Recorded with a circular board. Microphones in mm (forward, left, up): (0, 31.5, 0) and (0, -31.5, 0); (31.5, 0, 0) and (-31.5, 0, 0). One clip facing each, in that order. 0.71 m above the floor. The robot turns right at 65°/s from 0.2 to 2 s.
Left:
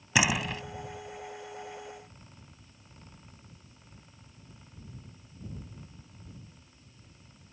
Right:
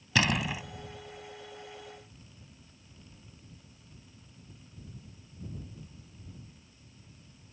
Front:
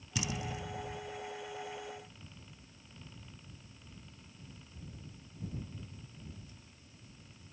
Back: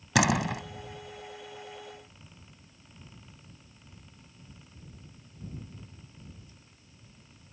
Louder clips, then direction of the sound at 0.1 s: Left 1 dB, back 13 dB; 170° left.